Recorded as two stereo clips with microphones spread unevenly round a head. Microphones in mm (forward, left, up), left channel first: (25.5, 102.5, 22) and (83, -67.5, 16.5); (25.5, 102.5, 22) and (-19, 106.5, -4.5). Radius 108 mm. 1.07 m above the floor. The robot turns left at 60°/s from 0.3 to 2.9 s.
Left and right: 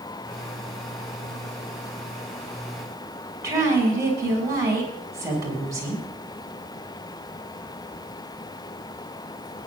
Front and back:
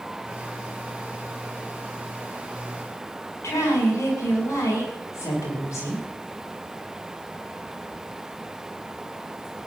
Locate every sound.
3.4 s a woman speaking: straight ahead, 8 m